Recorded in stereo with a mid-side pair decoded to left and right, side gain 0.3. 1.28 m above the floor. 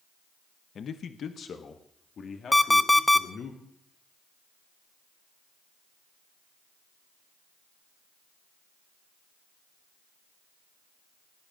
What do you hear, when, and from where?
0.8 s a man speaking: 70° left, 0.9 m; by 3.5 s 75° left, 3 m
2.5 s an alarm clock: 10° left, 1.0 m